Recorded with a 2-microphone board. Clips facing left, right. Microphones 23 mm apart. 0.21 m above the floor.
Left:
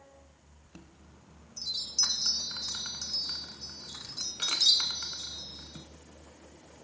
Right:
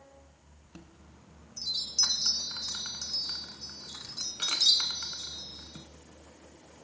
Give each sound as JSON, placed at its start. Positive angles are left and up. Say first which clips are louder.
{"t": 0.7, "sound": "a chime", "louder": "right 1 dB", "side_deg": -5, "distance_m": 0.8}